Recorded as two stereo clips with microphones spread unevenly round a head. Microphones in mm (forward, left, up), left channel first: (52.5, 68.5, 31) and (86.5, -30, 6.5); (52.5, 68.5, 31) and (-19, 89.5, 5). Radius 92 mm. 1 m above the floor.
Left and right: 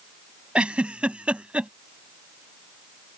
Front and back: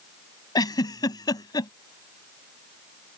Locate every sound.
0.6 s a giggle: 10° left